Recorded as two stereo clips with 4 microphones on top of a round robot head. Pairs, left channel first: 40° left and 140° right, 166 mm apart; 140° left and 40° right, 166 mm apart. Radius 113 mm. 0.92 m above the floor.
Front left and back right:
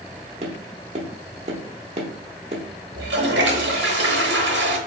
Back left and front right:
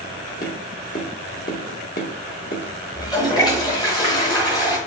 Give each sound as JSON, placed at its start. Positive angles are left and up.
{"t": 0.4, "sound": "tapping", "azimuth_deg": 170, "distance_m": 0.6}
{"t": 3.0, "sound": "a toilet flushing", "azimuth_deg": -155, "distance_m": 0.8}